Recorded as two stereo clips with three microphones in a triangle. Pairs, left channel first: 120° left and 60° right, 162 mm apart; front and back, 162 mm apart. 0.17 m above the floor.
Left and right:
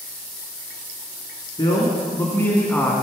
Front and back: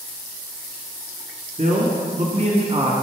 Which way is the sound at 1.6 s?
175° left.